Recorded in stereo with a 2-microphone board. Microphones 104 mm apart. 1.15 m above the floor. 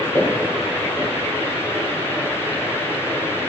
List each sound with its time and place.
0.1 s footsteps: 30° left (ahead or behind), 7.5 m